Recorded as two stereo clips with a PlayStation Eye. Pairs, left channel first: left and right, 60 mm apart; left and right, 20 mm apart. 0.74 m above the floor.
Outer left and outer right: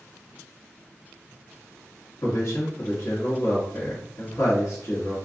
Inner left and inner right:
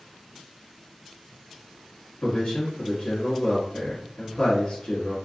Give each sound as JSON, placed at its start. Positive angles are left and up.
{"t": 2.2, "sound": "a man speaking", "side_deg": 50, "distance_m": 1.3}